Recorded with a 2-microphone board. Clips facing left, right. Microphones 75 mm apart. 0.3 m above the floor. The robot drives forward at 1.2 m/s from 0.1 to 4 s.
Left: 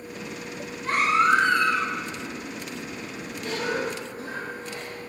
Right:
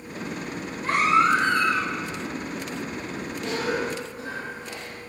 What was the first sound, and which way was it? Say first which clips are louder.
A baby crying: right 1 dB; 85° right.